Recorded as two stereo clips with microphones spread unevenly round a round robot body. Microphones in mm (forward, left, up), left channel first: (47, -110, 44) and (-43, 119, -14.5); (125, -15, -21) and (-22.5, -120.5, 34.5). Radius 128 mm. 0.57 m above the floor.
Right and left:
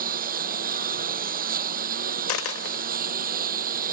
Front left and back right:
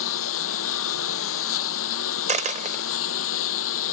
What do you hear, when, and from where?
0.0 s a lawn mower: 50° left
2.3 s a dropped coin: 100° right